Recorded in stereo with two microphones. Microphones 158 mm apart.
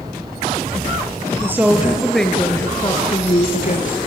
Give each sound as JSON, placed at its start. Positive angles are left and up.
{"t": 1.4, "sound": "a woman speaking", "side_deg": -15, "distance_m": 2.5}